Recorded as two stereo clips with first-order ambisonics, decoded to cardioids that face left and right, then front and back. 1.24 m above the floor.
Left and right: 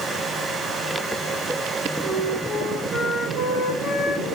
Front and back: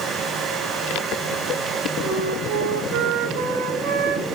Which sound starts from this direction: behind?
A flute, at 2.0 s.